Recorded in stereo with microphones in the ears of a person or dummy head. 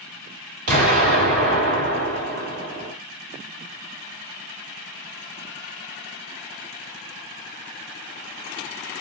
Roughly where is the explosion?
Right.